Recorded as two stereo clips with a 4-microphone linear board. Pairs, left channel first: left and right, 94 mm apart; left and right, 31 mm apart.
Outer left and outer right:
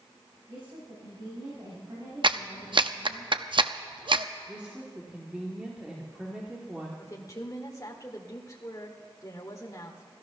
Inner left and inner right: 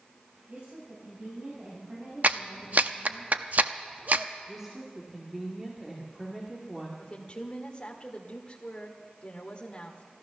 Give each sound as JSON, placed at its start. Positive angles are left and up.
{"t": 0.5, "sound": "a woman speaking", "side_deg": -55, "distance_m": 4.5}
{"t": 2.2, "sound": "a clap", "side_deg": -60, "distance_m": 0.6}
{"t": 4.5, "sound": "a woman speaking", "side_deg": -10, "distance_m": 1.9}
{"t": 7.0, "sound": "a woman speaking", "side_deg": 35, "distance_m": 1.7}